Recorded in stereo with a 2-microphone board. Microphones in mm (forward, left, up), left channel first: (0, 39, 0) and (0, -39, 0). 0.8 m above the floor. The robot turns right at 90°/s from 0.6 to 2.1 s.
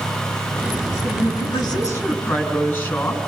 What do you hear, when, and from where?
1.0 s a woman speaking: 65° left, 7.5 m; by 3.2 s 165° left, 7.5 m